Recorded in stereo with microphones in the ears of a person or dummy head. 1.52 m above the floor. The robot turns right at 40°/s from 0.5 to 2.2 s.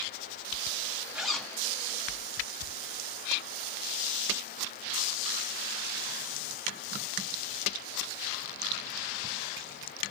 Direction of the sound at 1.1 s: Centre (ahead or behind).